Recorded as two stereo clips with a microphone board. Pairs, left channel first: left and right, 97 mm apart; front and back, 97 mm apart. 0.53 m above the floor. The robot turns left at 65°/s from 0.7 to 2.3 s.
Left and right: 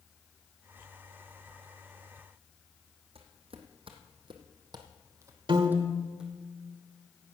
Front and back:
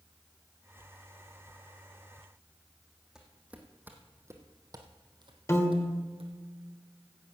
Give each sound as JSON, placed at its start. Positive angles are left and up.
{"t": 3.1, "sound": "footsteps", "azimuth_deg": -95, "distance_m": 1.8}
{"t": 5.5, "sound": "a piano", "azimuth_deg": -60, "distance_m": 1.3}